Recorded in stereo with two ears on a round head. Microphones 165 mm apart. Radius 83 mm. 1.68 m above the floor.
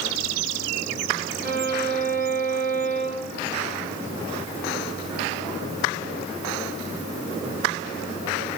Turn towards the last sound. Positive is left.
turn(degrees=-50)  # may be behind; listen again after turning